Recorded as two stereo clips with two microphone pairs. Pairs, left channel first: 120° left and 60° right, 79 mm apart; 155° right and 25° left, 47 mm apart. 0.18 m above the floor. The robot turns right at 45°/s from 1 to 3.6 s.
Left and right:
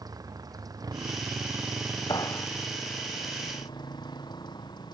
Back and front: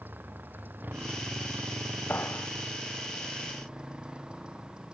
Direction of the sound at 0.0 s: 20° right.